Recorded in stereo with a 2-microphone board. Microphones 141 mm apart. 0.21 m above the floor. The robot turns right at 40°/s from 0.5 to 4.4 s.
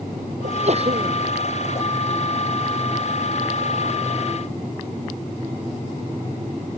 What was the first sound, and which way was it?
A sneeze, 60° right (ahead or behind).